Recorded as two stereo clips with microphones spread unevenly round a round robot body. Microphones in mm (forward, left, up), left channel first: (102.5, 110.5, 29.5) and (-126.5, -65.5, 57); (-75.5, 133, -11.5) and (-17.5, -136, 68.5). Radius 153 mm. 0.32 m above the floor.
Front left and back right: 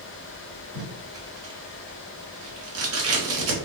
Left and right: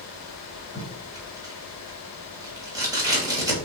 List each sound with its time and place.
0.8 s tape being pulled: 165° right, 1.4 m